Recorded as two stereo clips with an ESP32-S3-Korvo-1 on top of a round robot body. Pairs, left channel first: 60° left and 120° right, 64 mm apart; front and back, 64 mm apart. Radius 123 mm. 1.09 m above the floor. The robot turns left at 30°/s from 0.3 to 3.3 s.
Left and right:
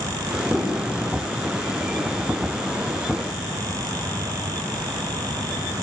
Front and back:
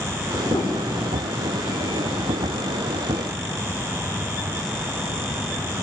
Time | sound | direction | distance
0.5 | a piano | 30° right | 3 m